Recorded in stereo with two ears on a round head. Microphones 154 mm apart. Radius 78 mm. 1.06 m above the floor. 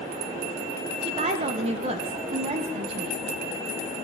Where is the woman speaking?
35° right (ahead or behind), 0.7 m.